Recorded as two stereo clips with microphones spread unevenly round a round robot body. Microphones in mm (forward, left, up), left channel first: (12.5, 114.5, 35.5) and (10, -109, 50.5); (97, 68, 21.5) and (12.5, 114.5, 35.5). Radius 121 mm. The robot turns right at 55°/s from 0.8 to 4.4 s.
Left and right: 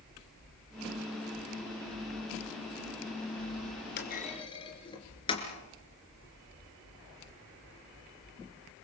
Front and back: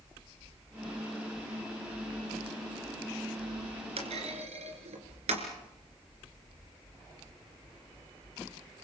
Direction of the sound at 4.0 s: 135° left.